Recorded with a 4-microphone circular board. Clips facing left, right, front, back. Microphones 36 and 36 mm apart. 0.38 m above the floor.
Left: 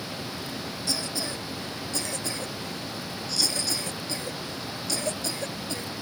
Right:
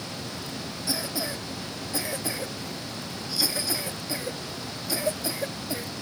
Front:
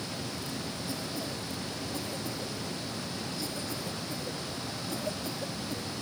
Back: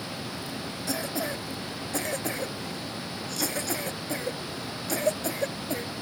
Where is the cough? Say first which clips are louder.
Right 2 dB, back 9 dB; 165° right.